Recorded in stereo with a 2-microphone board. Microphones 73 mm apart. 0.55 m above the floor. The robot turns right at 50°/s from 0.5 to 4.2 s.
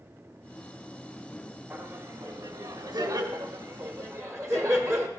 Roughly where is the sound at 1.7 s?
Right.